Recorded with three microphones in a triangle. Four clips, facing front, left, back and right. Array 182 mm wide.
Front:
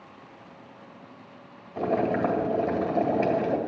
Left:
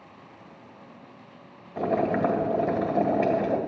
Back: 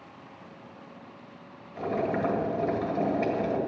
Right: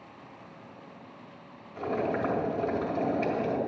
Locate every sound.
1.8 s boiling: 55° left, 1.7 m